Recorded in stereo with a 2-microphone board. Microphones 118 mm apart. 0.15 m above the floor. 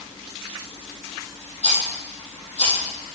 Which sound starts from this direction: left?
A rattle, at 1.6 s.